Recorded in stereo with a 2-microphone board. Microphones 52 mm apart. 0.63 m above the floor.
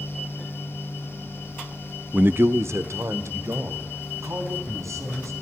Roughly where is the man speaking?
Right.